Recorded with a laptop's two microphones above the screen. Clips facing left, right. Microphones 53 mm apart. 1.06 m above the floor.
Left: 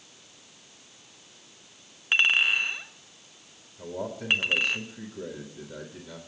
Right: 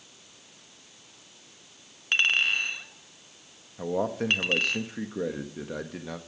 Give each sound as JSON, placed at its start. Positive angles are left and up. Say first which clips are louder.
{"t": 2.1, "sound": "a clink", "louder": "left 2 dB", "side_deg": 10, "distance_m": 0.7}
{"t": 3.8, "sound": "a man speaking", "louder": "right 7 dB", "side_deg": -75, "distance_m": 1.3}